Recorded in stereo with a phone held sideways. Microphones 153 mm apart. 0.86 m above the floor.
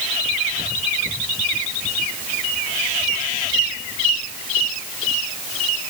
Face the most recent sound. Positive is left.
No sound to turn to.